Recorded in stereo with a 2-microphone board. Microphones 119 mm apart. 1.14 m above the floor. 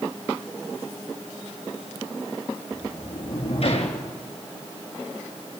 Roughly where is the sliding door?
Left.